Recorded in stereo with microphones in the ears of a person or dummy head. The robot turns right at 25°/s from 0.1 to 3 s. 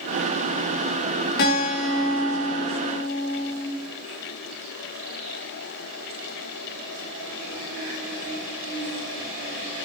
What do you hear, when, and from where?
1.4 s a guitar: 60° left, 1.4 m; by 3.7 s 100° left, 1.4 m